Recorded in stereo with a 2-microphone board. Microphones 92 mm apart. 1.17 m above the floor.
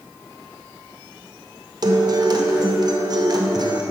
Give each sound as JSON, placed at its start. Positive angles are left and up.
{"t": 1.8, "sound": "a guitar", "side_deg": -45, "distance_m": 0.6}